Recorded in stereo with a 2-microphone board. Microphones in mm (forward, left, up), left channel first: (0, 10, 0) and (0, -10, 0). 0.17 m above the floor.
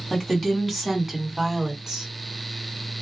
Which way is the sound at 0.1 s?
15° left (ahead or behind).